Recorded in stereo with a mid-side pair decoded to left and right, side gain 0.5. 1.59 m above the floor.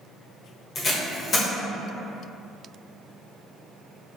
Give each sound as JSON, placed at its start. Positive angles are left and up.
{"t": 0.8, "sound": "tape being pulled", "azimuth_deg": 40, "distance_m": 0.9}